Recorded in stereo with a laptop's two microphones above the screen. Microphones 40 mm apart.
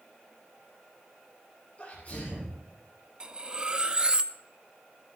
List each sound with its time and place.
1.8 s a sneeze: 35° left (ahead or behind), 6.5 m
3.2 s cutlery clinking: 25° right (ahead or behind), 0.7 m